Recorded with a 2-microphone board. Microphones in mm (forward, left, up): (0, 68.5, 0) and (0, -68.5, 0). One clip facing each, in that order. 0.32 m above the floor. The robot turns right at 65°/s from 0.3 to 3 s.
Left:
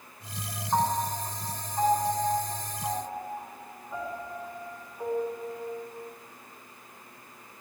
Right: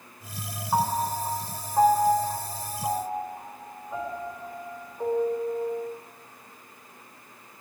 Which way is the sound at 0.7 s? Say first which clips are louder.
Right 2 dB; 15° right (ahead or behind).